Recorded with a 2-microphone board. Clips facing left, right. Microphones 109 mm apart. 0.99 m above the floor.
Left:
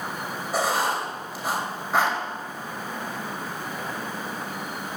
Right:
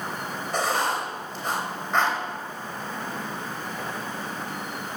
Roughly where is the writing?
Centre.